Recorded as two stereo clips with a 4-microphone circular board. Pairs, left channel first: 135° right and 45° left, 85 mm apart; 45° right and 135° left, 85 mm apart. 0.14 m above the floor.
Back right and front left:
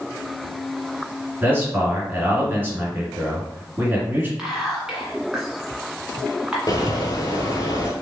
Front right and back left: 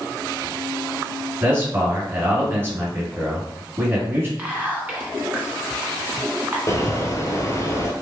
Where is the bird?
90° right, 0.8 m.